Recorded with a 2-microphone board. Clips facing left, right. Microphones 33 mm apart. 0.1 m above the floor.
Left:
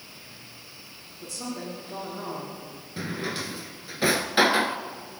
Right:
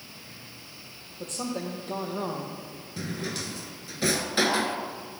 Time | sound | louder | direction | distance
1.2 | a woman speaking | right 3 dB | 65° right (ahead or behind) | 4 m
3.0 | a drawer | left 2 dB | 20° left (ahead or behind) | 0.9 m